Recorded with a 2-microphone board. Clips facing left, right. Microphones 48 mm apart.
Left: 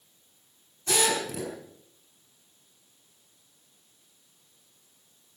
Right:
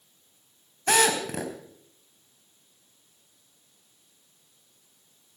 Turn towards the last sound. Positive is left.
turn(degrees=-60)  # may be behind; listen again after turning